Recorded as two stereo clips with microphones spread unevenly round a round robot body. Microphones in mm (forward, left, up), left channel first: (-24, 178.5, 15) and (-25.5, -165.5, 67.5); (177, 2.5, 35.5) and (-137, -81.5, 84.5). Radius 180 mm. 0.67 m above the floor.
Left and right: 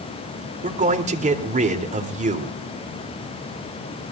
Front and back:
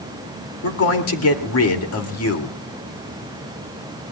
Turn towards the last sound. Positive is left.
turn(degrees=-20)